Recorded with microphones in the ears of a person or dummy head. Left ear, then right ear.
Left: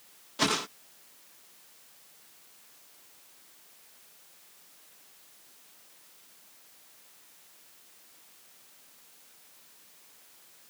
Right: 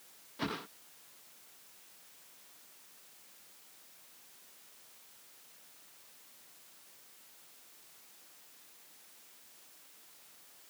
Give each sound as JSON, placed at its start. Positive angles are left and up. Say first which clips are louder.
{"t": 0.4, "sound": "a whoosh", "louder": "left 11 dB", "side_deg": 85}